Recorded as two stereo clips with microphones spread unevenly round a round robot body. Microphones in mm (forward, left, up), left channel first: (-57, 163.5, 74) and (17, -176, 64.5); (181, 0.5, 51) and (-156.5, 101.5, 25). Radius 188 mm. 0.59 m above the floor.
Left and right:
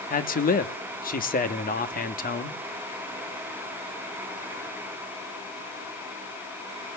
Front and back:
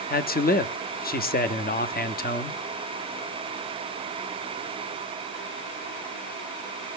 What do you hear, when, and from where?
0.1 s a man speaking: 45° left, 1.2 m